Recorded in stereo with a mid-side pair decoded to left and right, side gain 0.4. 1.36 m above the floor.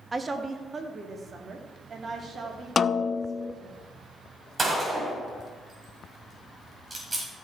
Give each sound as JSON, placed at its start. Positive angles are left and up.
{"t": 0.1, "sound": "a woman speaking", "azimuth_deg": -30, "distance_m": 1.5}
{"t": 2.8, "sound": "a snare drum", "azimuth_deg": 40, "distance_m": 0.6}
{"t": 4.6, "sound": "a gunshot", "azimuth_deg": -30, "distance_m": 5.5}